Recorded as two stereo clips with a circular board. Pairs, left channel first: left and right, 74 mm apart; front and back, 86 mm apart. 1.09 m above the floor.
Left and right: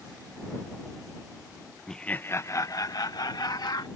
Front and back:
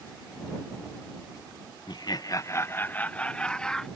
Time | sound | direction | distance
1.9 | laughter | 5° left | ?